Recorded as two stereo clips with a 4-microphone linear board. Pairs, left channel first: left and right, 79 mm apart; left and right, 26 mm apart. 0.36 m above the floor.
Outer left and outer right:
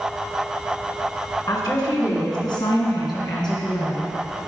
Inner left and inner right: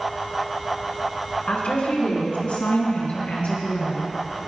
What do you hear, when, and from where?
1.5 s a woman speaking: 55° left (ahead or behind), 3.5 m; by 4.1 s 70° left (ahead or behind), 4.5 m